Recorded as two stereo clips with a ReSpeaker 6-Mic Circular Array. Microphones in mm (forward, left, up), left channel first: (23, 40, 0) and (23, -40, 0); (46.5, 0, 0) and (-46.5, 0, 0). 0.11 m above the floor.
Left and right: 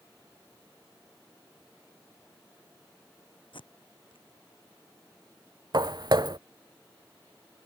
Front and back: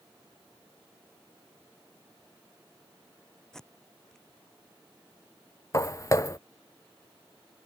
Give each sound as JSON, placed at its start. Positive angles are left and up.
{"t": 3.5, "sound": "tape being pulled", "azimuth_deg": 85}
{"t": 5.7, "sound": "footsteps", "azimuth_deg": -55}